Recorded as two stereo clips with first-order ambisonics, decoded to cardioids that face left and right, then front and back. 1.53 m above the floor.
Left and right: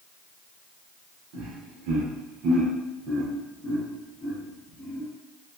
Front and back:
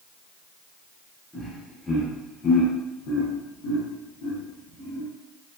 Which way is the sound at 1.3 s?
95° right.